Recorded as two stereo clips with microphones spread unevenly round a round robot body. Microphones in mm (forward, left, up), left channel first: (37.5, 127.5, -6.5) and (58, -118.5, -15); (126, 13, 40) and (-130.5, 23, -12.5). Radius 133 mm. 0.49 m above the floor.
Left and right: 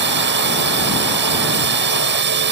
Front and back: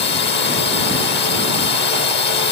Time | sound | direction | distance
0.0 | a drone | 55° right | ?